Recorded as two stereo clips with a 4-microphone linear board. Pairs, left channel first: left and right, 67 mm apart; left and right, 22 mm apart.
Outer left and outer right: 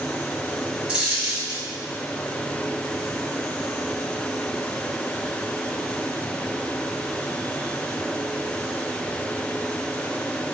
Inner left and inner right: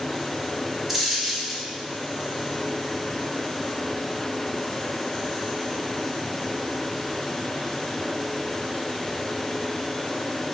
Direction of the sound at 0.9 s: 15° right (ahead or behind).